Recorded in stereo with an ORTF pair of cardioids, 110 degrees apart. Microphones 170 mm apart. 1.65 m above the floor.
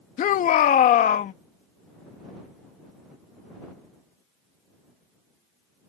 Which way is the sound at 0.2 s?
55° left.